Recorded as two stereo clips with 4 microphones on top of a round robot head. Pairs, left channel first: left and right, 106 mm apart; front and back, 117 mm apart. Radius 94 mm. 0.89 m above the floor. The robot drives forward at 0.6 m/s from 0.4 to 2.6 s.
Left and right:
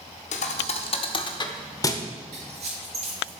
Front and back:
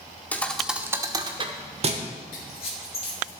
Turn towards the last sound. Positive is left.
turn(degrees=-55)